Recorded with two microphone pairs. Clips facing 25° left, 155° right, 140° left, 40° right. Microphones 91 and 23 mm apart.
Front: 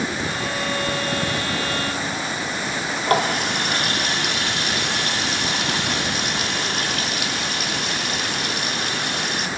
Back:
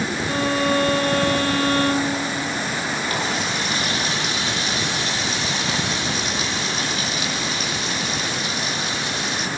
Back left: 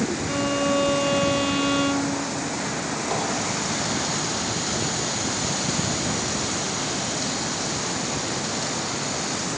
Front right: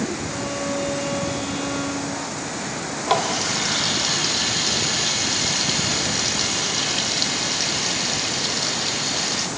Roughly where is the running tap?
Ahead.